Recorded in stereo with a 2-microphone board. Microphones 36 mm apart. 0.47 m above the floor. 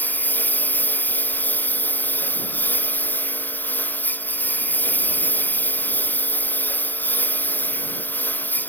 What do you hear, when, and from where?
0.0 s a lawn mower: 55° left (ahead or behind)